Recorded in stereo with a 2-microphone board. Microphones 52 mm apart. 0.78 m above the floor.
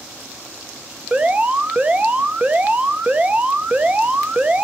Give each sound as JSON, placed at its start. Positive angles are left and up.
{"t": 1.1, "sound": "an alarm", "side_deg": -25, "distance_m": 0.7}